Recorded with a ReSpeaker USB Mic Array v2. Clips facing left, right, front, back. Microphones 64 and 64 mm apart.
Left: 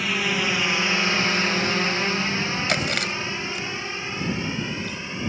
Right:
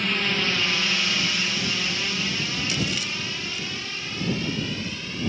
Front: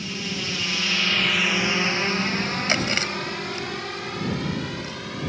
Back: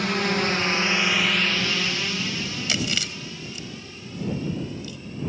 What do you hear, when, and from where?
0.0 s a drone: 170° left; by 5.3 s 20° left
2.7 s chewing: 55° left